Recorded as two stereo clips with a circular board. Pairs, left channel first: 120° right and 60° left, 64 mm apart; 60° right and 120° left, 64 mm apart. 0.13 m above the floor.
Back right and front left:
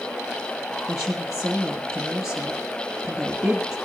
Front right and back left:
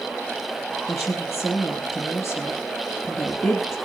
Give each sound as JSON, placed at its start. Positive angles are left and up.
{"t": 0.9, "sound": "a woman speaking", "azimuth_deg": -15, "distance_m": 2.5}